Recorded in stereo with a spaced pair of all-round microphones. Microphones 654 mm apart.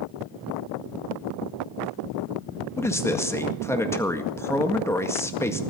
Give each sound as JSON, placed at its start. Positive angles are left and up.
{"t": 2.8, "sound": "a man speaking", "side_deg": 5, "distance_m": 1.8}